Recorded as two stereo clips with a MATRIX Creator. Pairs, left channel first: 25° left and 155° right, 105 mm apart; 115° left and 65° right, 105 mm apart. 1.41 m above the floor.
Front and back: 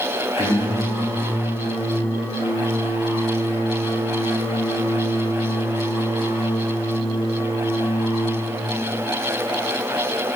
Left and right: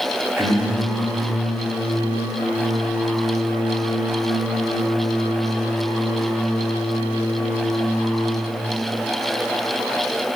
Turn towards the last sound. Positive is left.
turn(degrees=0)